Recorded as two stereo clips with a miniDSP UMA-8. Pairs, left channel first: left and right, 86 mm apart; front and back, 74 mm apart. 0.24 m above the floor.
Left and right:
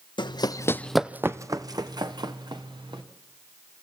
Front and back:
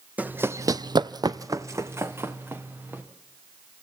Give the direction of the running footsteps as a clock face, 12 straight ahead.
8 o'clock.